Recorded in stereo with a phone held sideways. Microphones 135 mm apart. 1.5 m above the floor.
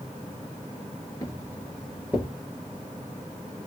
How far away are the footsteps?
About 1.6 m.